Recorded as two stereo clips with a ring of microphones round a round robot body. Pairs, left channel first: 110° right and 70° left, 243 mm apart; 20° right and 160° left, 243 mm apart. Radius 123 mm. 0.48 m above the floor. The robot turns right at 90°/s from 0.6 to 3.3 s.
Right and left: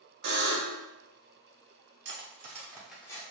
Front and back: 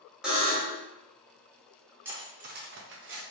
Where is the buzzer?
70° left, 1.0 m; by 0.8 s 95° left, 1.0 m.